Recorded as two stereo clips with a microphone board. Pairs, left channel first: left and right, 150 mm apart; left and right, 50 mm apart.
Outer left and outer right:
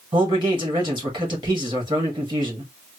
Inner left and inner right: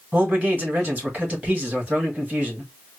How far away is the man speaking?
About 2 m.